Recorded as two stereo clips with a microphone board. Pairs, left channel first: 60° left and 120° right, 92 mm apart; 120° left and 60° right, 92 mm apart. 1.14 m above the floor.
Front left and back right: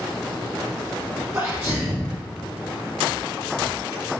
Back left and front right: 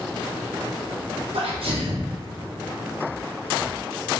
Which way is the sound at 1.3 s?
60° right.